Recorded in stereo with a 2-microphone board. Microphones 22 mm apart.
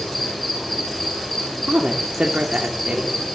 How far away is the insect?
About 6.5 m.